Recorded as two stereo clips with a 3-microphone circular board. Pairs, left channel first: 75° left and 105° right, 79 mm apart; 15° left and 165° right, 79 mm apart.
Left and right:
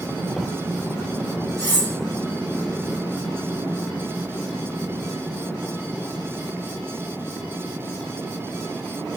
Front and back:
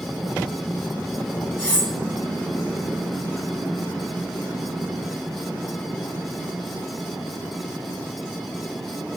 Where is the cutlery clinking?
55° right, 1.7 m.